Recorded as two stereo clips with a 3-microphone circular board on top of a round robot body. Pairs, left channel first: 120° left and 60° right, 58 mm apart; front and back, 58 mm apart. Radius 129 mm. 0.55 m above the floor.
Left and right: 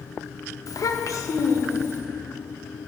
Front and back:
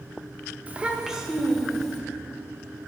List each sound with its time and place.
0.7 s a child speaking: 115° left, 0.9 m; by 2.0 s 85° left, 1.8 m